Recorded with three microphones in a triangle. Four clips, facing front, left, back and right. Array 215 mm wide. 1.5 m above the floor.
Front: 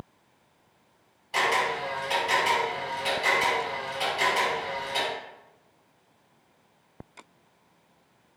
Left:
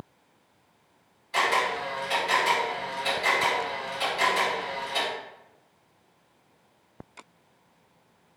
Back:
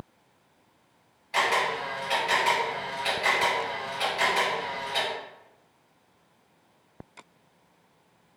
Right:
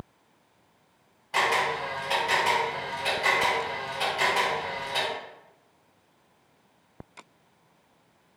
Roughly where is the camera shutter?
Right.